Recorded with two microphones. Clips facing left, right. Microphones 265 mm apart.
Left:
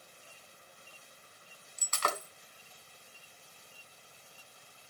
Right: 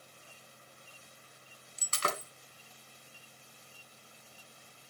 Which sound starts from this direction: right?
Breaking glass, at 1.8 s.